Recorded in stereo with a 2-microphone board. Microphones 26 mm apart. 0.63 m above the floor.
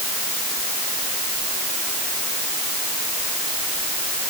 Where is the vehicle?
I don't hear a vehicle.